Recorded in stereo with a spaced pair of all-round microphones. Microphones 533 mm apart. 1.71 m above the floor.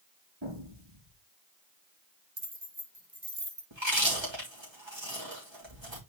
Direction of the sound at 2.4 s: 35° right (ahead or behind).